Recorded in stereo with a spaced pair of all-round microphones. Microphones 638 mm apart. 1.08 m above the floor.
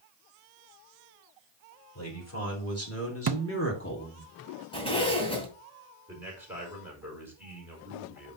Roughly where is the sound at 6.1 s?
Centre.